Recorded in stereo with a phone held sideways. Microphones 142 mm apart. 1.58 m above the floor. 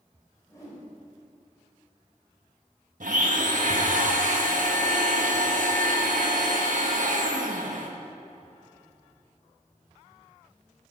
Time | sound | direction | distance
0.5 | a whoosh | 20° left (ahead or behind) | 4 m
3.0 | a blender | 65° right (ahead or behind) | 1.5 m